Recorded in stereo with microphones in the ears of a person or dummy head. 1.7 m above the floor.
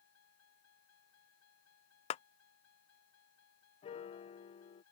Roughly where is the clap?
Left.